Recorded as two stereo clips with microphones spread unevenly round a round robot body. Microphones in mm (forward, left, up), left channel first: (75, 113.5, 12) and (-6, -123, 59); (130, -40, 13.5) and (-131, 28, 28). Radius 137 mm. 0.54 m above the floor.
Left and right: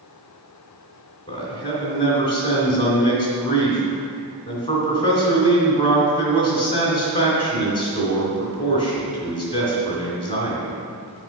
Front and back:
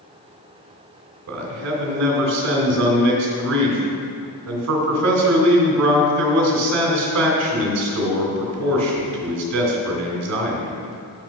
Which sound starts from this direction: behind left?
A man speaking, at 1.3 s.